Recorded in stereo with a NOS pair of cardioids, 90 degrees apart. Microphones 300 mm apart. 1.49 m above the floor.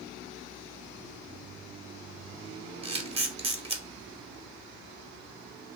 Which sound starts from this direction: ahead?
A camera shutter, at 2.8 s.